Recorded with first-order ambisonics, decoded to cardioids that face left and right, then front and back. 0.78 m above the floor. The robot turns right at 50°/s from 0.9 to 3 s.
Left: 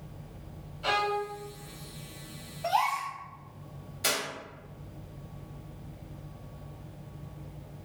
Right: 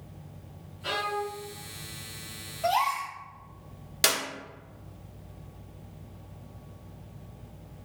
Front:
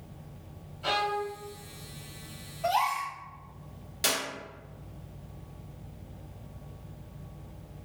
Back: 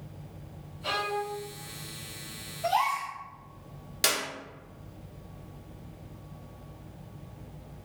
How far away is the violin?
About 1.1 m.